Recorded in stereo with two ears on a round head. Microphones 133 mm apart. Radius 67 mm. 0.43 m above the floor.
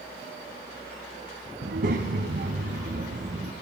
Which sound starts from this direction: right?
A child speaking, at 1.6 s.